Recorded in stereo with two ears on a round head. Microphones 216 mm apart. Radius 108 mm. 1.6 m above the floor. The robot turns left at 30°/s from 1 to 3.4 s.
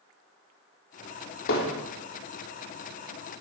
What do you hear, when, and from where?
1.5 s hammering: 55° left (ahead or behind), 4 m; by 1.7 s 65° left (ahead or behind), 4 m